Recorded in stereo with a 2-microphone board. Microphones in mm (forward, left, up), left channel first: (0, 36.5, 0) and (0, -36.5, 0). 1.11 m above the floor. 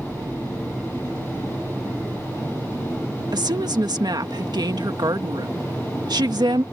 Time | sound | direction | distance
3.3 | a woman speaking | 70° right (ahead or behind) | ?